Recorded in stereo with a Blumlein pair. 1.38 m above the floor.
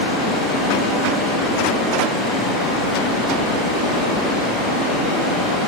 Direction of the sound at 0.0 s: Straight ahead.